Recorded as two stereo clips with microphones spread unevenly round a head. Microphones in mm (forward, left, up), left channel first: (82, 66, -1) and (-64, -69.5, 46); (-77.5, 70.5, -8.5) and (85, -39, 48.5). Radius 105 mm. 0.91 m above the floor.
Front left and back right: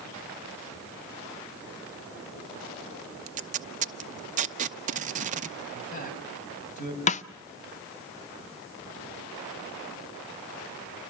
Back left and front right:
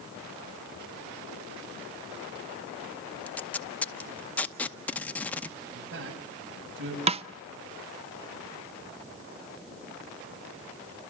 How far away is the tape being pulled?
About 0.8 m.